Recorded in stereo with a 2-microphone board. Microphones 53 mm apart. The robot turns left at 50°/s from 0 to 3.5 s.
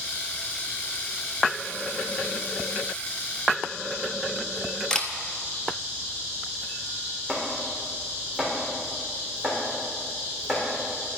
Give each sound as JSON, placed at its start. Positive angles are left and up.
{"t": 4.9, "sound": "a camera shutter", "side_deg": 15, "distance_m": 0.9}
{"t": 7.3, "sound": "chopping", "side_deg": -5, "distance_m": 3.5}